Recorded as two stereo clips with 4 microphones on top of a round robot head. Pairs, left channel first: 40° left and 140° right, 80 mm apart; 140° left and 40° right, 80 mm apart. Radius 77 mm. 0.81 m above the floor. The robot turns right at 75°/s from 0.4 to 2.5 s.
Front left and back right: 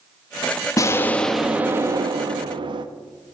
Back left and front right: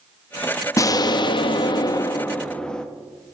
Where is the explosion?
90° left, 0.8 m; by 2.9 s 140° right, 0.8 m.